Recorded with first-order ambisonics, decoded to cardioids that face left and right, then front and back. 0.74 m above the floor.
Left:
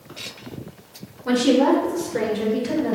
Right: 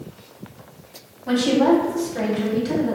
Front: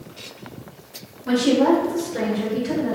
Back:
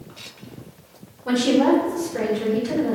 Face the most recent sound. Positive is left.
turn(degrees=95)